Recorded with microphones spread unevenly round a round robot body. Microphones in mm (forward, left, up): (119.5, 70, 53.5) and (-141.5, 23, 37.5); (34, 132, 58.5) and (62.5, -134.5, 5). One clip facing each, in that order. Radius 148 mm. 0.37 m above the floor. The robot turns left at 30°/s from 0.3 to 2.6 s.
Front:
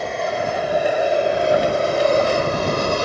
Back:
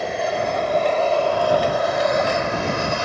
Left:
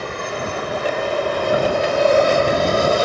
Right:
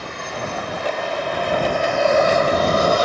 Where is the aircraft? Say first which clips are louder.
Even, left 4 dB; 105° left; by 3.0 s 35° left.